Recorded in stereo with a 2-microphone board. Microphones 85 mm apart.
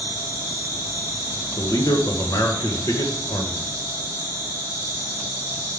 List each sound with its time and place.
0.0 s an insect: 45° right (ahead or behind), 2.5 m
1.6 s a man speaking: 50° left (ahead or behind), 1.4 m